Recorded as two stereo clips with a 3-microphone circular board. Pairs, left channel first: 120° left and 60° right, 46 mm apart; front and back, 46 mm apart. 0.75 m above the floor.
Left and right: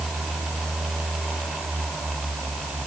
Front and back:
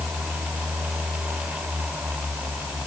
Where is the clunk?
I don't hear a clunk.